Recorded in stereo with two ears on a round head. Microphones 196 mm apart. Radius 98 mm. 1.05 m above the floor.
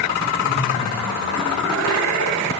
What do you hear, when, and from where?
0.4 s laughter: 45° left (ahead or behind), 5.5 m; by 2.5 s 75° left (ahead or behind), 6.5 m